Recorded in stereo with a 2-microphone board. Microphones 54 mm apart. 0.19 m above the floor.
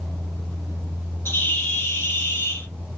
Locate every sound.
1.2 s a bird: 50° left (ahead or behind), 0.6 m